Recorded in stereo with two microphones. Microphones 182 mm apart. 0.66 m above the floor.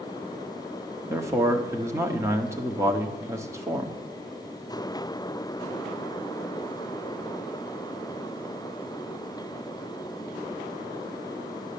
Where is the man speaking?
15° right (ahead or behind), 1.2 m.